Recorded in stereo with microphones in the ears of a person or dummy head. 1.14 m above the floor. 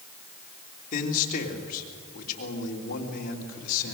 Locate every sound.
0.9 s a man speaking: 50° left (ahead or behind), 3 m